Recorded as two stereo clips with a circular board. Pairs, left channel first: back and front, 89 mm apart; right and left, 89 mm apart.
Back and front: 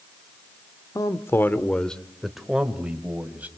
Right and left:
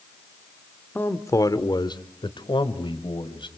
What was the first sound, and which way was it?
A man speaking, 150° right.